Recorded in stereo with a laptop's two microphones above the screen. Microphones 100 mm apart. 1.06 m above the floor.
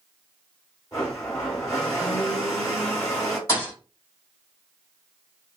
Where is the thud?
35° left (ahead or behind), 3.5 m.